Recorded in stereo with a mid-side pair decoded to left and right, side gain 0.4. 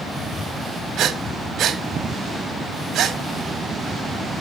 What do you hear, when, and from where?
1.0 s breathing: 70° right, 1.7 m